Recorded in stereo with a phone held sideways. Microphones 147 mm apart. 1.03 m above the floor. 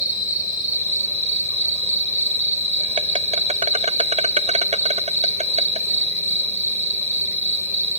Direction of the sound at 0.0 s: 55° right (ahead or behind).